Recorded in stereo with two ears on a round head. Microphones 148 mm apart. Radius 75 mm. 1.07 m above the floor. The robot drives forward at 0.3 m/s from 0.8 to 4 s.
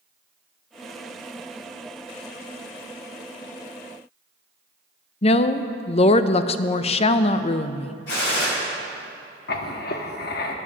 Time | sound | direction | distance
5.2 | a woman speaking | 40° left (ahead or behind) | 0.5 m
8.1 | a gunshot | 75° left (ahead or behind) | 4.5 m
9.5 | writing | 65° left (ahead or behind) | 1.0 m